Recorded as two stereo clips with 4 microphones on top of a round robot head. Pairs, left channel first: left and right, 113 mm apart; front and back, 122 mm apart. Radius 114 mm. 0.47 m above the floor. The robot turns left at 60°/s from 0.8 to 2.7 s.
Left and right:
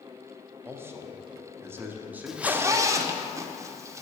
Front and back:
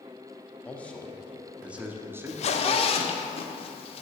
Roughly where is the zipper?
Ahead.